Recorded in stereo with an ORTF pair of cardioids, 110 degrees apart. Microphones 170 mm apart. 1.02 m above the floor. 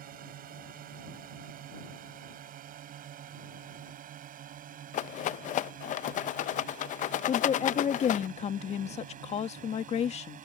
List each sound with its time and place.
0.0 s a drone: 65° right; by 10.5 s 55° right
4.9 s a rattle: 50° left
7.3 s a woman speaking: 45° left